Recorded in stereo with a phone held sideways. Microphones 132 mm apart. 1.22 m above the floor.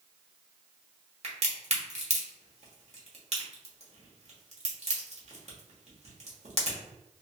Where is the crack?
55° right (ahead or behind), 1.0 m.